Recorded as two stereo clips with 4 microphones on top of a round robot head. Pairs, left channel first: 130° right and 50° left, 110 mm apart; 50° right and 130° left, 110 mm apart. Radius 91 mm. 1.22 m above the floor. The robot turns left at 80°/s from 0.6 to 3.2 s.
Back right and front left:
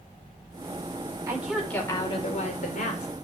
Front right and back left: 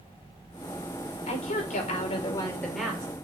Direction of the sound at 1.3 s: 15° right.